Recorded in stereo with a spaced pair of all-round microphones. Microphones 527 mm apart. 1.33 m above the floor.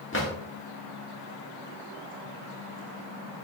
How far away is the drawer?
About 1.3 m.